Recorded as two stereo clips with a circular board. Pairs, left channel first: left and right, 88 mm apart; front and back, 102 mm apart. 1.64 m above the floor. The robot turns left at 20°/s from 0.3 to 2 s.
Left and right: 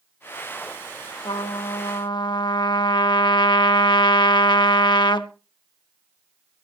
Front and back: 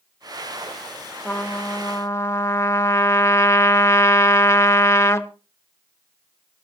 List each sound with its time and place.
1.2 s a trumpet: 75° left, 1.1 m; by 5.3 s 60° left, 1.1 m